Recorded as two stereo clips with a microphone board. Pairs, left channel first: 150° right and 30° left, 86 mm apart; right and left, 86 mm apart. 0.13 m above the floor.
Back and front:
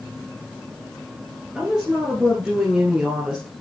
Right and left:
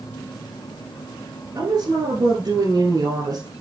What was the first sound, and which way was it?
A woman speaking, 110° left.